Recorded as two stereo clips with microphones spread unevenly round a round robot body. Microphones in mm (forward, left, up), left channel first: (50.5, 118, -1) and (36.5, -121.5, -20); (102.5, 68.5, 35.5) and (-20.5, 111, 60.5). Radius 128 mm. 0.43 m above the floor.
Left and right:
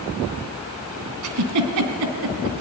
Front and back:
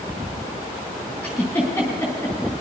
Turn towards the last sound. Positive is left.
turn(degrees=-100)